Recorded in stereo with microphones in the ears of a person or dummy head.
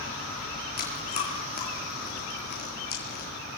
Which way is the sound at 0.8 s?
50° left (ahead or behind).